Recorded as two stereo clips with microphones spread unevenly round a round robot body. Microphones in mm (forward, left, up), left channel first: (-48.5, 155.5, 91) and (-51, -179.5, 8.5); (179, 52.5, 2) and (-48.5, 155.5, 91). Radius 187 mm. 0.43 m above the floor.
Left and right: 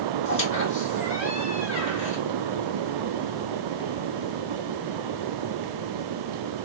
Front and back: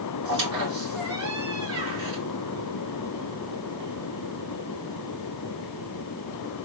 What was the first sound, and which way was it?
A squeak, 150° left.